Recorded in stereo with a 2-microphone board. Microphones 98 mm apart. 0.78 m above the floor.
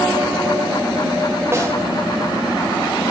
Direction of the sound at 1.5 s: 25° right (ahead or behind).